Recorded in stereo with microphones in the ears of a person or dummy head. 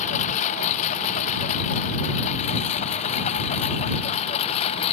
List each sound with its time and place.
0.0 s a lawn mower: 40° left (ahead or behind); by 4.9 s 35° left (ahead or behind)